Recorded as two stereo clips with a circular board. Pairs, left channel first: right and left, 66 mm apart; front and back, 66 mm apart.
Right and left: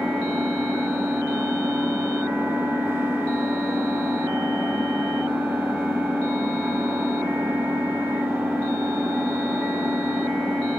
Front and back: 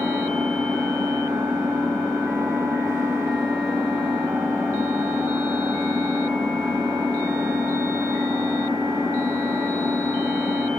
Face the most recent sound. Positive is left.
turn(degrees=145)